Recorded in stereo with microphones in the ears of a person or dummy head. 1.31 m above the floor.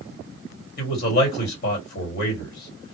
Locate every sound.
0.8 s a man speaking: 45° left (ahead or behind), 1.6 m